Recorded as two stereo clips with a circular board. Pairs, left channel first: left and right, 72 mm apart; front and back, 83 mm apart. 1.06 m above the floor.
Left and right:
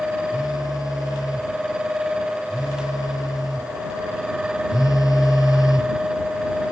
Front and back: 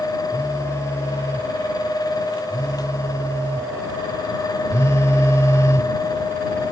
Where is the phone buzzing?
60° left.